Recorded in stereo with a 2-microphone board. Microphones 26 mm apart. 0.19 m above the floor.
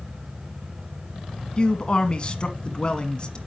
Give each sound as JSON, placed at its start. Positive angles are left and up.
{"t": 1.6, "sound": "a man speaking", "side_deg": 35, "distance_m": 1.5}